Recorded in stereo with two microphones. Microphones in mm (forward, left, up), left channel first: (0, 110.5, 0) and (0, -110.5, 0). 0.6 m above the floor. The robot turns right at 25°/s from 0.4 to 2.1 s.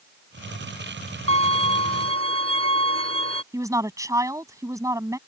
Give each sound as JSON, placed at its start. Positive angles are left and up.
{"t": 1.3, "sound": "a violin", "side_deg": -70}
{"t": 3.5, "sound": "a woman speaking", "side_deg": -15}